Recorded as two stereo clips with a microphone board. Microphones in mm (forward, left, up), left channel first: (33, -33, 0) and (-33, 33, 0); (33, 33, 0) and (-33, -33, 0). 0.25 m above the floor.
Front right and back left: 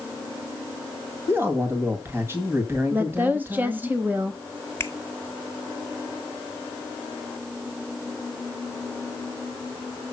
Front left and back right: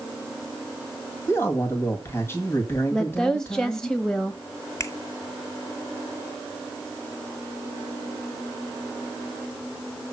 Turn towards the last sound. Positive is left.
turn(degrees=5)